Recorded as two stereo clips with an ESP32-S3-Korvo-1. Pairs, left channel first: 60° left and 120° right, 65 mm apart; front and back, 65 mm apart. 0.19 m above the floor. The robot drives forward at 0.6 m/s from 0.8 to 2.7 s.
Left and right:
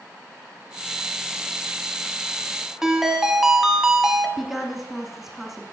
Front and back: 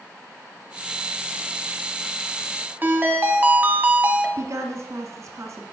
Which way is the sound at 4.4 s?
155° left.